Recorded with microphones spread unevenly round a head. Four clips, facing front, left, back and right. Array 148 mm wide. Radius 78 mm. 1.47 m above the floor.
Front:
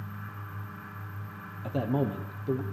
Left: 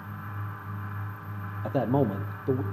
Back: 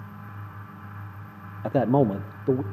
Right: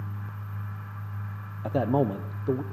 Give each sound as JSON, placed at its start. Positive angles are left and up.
{"t": 1.6, "sound": "a man speaking", "azimuth_deg": -175, "distance_m": 0.9}